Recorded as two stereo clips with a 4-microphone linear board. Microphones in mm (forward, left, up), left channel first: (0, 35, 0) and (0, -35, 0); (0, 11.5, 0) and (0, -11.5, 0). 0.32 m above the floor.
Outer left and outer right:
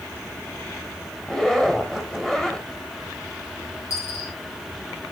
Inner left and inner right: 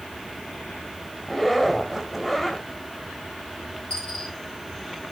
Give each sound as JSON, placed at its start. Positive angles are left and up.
{"t": 1.2, "sound": "a zipper", "side_deg": 10, "distance_m": 1.8}
{"t": 3.9, "sound": "a dropped coin", "side_deg": 50, "distance_m": 8.0}